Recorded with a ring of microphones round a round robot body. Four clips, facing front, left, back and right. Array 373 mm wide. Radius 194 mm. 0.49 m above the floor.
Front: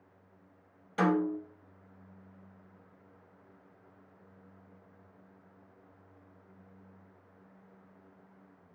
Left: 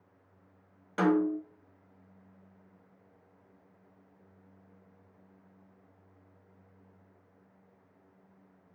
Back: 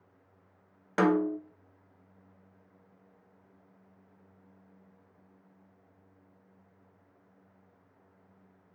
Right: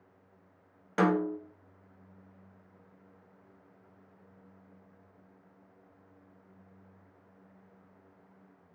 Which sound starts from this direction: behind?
A snare drum, at 1.0 s.